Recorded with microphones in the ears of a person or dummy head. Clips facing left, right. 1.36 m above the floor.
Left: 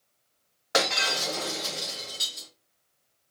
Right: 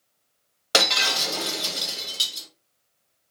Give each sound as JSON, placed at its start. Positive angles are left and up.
{"t": 0.7, "sound": "breaking glass", "side_deg": -45, "distance_m": 1.1}